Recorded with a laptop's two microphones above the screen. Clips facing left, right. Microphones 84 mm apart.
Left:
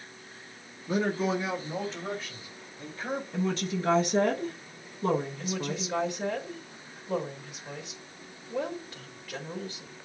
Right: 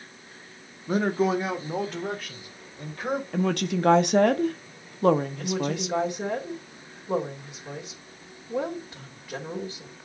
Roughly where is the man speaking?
Right.